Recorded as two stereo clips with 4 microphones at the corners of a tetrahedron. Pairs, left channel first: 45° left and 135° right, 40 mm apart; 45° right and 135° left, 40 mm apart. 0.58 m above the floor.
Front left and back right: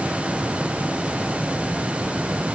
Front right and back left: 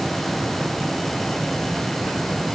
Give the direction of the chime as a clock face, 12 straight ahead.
I don't hear a chime.